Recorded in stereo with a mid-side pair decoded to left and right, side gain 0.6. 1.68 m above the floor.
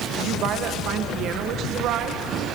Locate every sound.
0.2 s a woman speaking: 60° right, 1.9 m